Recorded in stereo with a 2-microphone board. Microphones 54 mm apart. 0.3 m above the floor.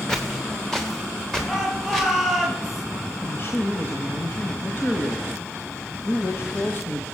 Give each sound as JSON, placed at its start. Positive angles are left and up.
{"t": 0.1, "sound": "footsteps", "side_deg": 5, "distance_m": 2.5}
{"t": 1.5, "sound": "a shout", "side_deg": 0, "distance_m": 7.0}
{"t": 3.2, "sound": "a man speaking", "side_deg": 50, "distance_m": 1.3}